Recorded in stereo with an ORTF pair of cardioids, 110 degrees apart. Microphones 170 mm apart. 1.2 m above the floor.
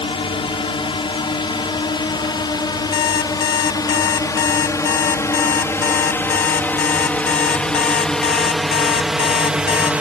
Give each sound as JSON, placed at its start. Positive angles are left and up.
{"t": 0.0, "sound": "a drone", "azimuth_deg": 35}
{"t": 2.9, "sound": "an alarm clock", "azimuth_deg": 70}